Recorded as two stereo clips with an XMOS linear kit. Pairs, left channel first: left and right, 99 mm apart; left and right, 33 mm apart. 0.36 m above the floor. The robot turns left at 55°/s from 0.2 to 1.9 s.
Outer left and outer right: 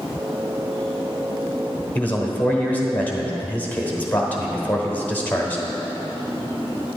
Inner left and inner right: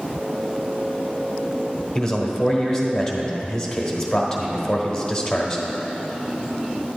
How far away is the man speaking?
About 1.2 m.